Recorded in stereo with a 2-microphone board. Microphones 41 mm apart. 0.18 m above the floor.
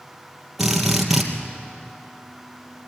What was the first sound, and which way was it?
A drill, 5° right (ahead or behind).